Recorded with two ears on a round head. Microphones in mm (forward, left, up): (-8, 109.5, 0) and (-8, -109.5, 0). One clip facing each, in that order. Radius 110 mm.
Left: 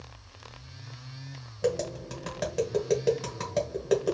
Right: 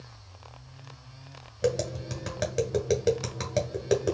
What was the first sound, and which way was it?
Tapping, 10° right (ahead or behind).